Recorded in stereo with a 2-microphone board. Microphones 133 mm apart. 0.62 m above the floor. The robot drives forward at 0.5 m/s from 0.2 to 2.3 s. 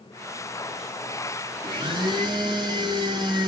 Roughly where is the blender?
Right.